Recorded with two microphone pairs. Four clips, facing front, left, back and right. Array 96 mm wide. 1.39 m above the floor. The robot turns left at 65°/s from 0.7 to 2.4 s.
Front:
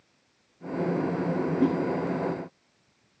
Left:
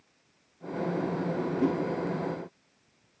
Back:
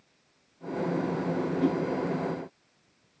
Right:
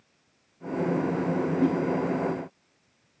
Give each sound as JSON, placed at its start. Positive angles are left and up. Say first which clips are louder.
{"t": 1.6, "sound": "a whoosh", "louder": "right 2 dB, front 3 dB", "azimuth_deg": -15, "distance_m": 2.0}